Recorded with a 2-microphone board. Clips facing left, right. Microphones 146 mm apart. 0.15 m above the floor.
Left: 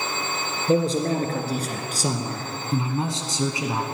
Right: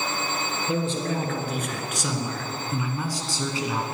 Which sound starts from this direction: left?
A man speaking, at 0.7 s.